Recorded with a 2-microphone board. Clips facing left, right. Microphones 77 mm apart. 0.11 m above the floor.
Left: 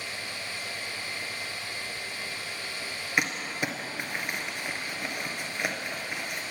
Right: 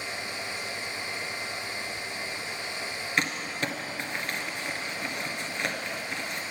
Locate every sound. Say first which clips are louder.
3.2 s crumpling: left 1 dB; 10° left (ahead or behind), 1.4 m